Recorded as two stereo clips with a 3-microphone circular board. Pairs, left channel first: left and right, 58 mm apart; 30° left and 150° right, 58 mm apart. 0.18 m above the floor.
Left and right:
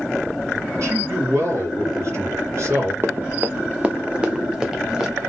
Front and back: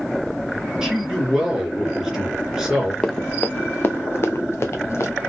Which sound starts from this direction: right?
A man speaking, at 0.8 s.